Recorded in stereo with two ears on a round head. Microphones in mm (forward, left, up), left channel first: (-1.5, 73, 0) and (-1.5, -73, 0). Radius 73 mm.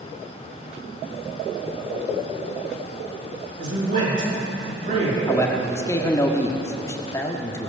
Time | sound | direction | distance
3.6 | a man speaking | 50° right (ahead or behind) | 6 m
5.3 | a man speaking | 20° left (ahead or behind) | 1.3 m